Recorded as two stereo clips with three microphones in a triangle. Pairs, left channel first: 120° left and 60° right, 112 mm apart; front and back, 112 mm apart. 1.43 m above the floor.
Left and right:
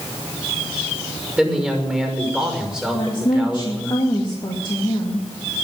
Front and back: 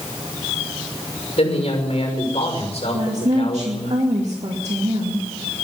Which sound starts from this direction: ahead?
A man speaking, at 1.4 s.